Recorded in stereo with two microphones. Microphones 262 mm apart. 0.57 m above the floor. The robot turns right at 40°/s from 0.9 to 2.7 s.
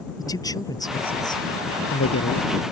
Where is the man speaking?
15° left (ahead or behind); by 2.5 s 75° left (ahead or behind).